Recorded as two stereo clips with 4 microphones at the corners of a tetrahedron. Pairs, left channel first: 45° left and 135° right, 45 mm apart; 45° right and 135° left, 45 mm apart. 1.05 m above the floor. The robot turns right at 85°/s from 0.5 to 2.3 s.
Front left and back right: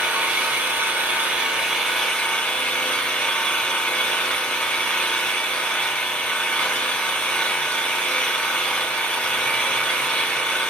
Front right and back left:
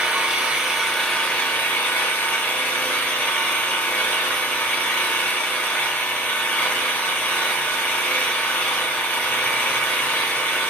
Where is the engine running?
170° right, 1.1 m; by 10.7 s 15° right, 1.1 m.